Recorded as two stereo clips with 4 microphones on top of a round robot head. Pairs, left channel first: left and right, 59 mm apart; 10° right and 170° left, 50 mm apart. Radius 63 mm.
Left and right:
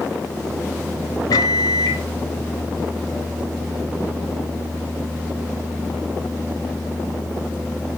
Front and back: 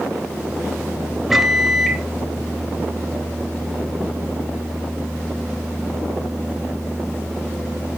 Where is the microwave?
80° left, 0.7 m.